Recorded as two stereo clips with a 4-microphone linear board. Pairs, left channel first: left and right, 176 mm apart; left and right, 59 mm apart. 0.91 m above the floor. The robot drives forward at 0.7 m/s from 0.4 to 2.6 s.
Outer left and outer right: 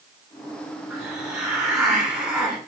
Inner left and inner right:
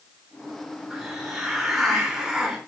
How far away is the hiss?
About 4.5 m.